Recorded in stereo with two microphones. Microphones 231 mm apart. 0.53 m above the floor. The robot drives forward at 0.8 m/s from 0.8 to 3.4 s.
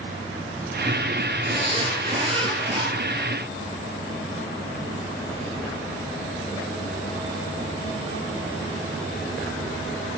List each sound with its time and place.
1.5 s a zipper: 25° right (ahead or behind), 9.5 m; by 2.9 s 20° right (ahead or behind), 10.5 m